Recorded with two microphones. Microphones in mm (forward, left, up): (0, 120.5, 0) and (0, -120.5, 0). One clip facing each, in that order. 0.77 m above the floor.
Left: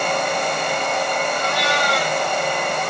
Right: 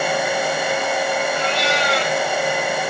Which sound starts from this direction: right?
A cat meowing, at 1.4 s.